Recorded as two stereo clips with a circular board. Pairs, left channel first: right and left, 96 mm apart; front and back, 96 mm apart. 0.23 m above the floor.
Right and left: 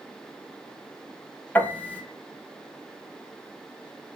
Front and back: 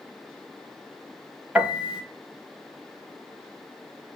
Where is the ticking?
I don't hear ticking.